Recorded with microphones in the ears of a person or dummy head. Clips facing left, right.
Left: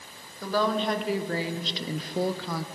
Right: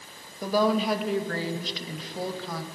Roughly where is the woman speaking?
Centre.